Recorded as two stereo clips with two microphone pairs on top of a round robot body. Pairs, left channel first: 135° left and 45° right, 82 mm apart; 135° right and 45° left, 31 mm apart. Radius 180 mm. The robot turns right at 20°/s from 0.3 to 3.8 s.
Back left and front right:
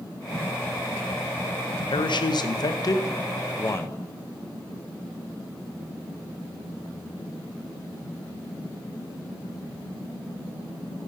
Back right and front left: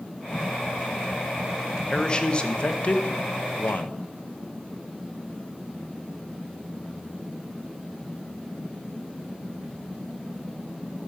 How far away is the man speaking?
About 0.8 m.